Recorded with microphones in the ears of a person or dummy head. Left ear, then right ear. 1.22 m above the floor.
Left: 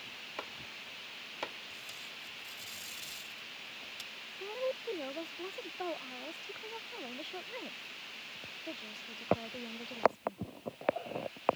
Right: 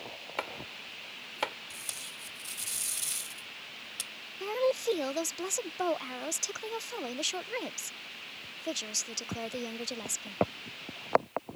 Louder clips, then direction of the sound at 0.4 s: Right 8 dB; 30° right (ahead or behind).